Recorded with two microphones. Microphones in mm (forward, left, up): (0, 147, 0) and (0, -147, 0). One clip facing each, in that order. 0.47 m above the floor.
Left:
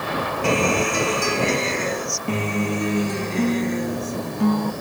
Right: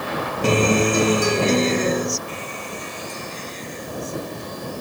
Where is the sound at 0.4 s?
45° right (ahead or behind).